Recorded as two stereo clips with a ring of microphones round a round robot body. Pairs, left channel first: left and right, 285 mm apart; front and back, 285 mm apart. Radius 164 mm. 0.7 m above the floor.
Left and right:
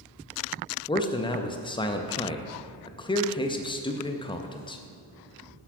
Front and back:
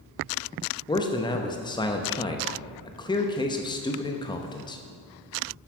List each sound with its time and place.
0.9 s a man speaking: 45° left, 0.6 m